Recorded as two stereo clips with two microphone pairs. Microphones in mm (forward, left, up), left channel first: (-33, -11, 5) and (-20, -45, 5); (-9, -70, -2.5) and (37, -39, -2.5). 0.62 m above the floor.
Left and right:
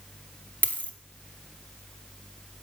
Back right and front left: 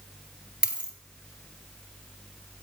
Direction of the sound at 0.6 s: 105° left.